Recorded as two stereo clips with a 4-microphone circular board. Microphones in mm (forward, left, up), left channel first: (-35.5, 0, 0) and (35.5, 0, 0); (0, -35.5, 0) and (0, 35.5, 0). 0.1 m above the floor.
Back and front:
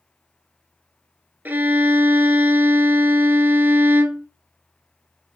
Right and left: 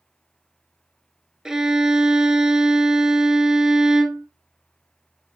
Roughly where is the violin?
Ahead.